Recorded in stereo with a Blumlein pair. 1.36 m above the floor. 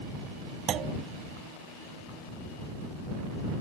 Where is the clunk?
30° right.